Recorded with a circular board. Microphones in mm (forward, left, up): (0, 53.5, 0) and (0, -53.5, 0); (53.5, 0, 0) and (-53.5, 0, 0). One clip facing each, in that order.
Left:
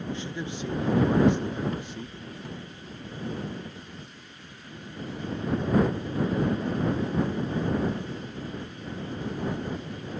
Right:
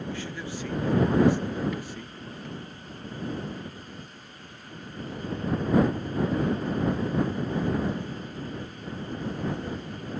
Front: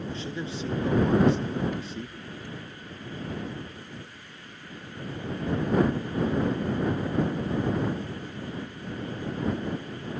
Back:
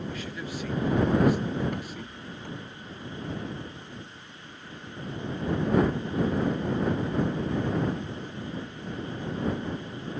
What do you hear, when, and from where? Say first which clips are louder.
0.1 s a man speaking: left 1 dB, front 2 dB; 40° left
1.7 s a rattle: even, front 1 dB; 145° left